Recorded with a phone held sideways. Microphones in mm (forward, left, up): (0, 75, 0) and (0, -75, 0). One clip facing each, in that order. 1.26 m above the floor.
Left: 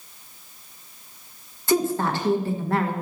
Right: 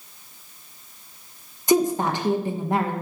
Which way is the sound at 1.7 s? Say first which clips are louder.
Right 2 dB; 15° right (ahead or behind).